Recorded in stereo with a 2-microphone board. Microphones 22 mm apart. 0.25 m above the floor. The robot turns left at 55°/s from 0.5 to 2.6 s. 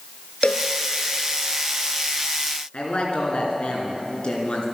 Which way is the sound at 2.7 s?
55° left (ahead or behind).